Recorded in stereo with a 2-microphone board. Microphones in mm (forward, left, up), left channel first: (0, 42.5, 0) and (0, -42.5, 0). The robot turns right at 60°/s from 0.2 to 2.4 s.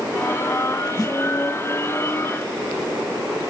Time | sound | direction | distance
1.0 | a snare drum | 45° left (ahead or behind) | 2 m